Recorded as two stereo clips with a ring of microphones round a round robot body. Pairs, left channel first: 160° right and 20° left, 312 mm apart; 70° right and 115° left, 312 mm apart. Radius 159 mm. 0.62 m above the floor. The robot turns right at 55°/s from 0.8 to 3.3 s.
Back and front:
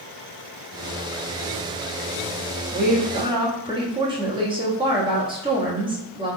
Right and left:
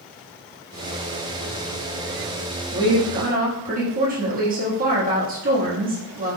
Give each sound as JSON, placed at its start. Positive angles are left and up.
{"t": 2.7, "sound": "a woman speaking", "azimuth_deg": 50, "distance_m": 1.2}